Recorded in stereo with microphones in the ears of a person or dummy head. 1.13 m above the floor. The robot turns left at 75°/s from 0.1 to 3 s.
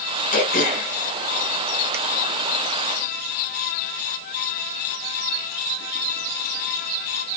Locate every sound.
0.3 s throat clearing: 35° left (ahead or behind), 0.6 m; by 2.0 s 15° right (ahead or behind), 0.6 m